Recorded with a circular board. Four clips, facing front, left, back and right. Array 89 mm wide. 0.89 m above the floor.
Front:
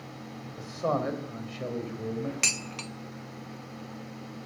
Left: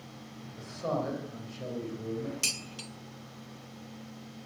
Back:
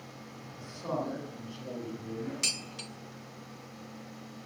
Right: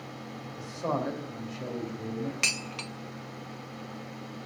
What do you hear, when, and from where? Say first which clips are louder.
0.6 s a man speaking: right 1 dB, front 6 dB; 10° right, 3.5 m
2.4 s dishes clattering: right 6 dB, front 5 dB; 50° right, 0.5 m